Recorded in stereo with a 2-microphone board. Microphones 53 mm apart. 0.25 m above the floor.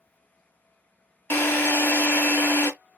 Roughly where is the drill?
Left.